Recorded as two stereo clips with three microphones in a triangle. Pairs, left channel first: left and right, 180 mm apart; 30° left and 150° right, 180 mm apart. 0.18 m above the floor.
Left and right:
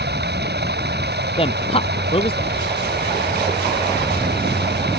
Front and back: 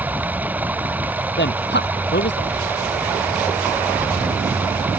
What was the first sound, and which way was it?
Running water, 70° right.